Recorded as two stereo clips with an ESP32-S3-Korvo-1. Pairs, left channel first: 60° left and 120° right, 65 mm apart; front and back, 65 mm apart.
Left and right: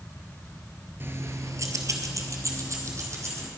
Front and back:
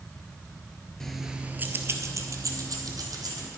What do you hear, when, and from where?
1.0 s keys jangling: 80° right, 1.2 m; by 3.5 s 165° right, 3 m